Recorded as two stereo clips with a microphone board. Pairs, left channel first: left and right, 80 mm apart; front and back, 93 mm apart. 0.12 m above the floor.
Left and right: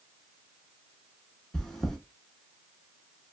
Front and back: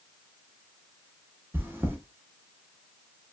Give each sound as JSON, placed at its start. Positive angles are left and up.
{"t": 1.5, "sound": "chewing", "azimuth_deg": 165, "distance_m": 0.6}